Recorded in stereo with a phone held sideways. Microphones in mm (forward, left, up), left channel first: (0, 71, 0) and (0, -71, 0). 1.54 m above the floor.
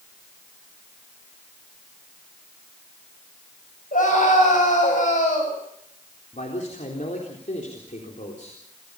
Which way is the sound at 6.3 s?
65° left (ahead or behind).